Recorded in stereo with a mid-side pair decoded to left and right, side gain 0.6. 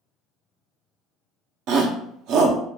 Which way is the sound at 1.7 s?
70° right.